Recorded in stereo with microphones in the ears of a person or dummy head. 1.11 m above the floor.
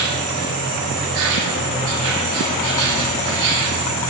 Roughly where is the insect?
Right.